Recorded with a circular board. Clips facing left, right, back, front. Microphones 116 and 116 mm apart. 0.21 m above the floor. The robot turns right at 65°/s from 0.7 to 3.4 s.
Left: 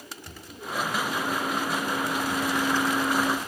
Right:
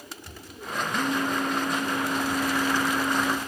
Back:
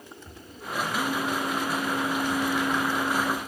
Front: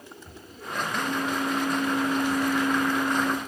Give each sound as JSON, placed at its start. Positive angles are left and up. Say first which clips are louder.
{"t": 0.9, "sound": "a phone buzzing", "louder": "right 5 dB, front 1 dB", "azimuth_deg": -95, "distance_m": 4.5}